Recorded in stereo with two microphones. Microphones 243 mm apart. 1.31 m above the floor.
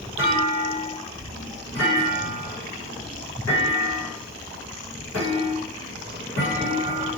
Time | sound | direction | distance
0.2 | a clunk | 75° left (ahead or behind) | 1.7 m